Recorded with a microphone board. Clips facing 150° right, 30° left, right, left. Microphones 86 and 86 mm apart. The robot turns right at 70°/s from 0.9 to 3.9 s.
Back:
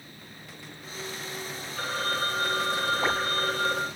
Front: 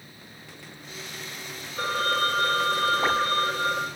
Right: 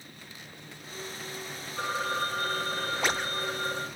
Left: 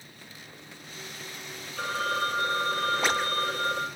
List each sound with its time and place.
1.8 s a phone ringing: 30° right, 2 m; by 3.9 s 120° left, 2 m